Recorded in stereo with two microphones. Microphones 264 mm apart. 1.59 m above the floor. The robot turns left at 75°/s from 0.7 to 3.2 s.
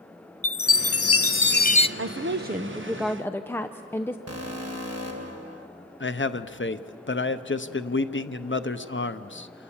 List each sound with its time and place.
0.4 s a chime: 110° left, 0.6 m; by 1.9 s 20° left, 0.6 m
2.0 s a woman speaking: 100° right, 0.6 m; by 4.2 s 170° left, 0.6 m
4.3 s an alarm: 65° right (ahead or behind), 1.9 m
6.0 s a man speaking: 45° left (ahead or behind), 0.8 m